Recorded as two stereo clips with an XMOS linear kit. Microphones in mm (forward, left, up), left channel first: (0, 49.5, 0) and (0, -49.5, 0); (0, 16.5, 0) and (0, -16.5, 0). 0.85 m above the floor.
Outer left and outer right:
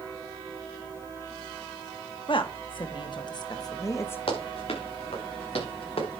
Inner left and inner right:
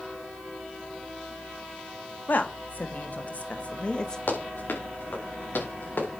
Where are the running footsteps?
75° left (ahead or behind), 5 m.